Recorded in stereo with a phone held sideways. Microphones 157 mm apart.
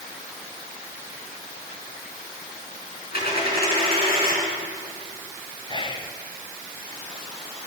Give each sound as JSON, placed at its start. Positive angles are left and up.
{"t": 3.1, "sound": "a dropped coin", "side_deg": 80, "distance_m": 4.5}
{"t": 5.7, "sound": "whispering", "side_deg": 30, "distance_m": 0.6}